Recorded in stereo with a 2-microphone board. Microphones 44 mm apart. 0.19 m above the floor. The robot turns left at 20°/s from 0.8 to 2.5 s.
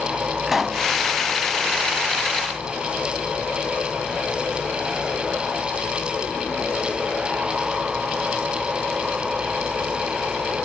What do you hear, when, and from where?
0.5 s a pop: 5° right (ahead or behind), 0.8 m